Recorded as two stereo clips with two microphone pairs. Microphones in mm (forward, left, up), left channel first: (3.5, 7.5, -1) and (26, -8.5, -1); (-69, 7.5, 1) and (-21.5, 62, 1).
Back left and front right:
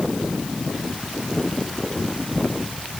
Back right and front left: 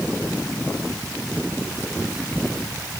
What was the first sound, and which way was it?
Only background noise.